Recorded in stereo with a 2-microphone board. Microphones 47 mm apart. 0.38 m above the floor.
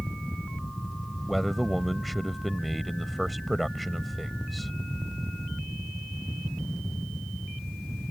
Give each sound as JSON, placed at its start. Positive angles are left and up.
{"t": 1.3, "sound": "a man speaking", "side_deg": 0}